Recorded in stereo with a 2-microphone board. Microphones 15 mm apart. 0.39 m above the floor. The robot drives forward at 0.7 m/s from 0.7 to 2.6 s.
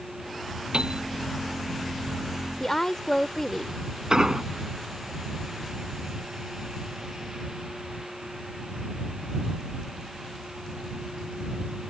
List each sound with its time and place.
0.7 s a piano: 85° right; by 1.0 s 80° right
2.6 s a woman speaking: 30° left (ahead or behind)
4.1 s an explosion: 45° right (ahead or behind)